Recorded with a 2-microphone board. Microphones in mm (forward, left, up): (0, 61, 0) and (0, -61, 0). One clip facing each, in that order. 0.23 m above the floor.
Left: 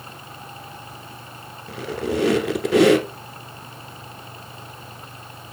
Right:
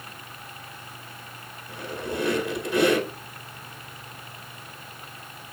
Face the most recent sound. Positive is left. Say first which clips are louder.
# left 7 dB
turn(degrees=80)